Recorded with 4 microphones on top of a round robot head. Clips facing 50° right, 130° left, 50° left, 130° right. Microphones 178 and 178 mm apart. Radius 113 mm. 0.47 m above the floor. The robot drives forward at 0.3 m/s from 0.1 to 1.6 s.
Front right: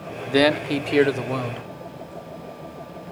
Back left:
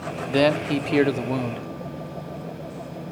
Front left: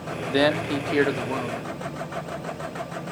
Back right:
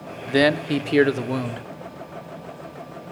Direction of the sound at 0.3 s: 110° right.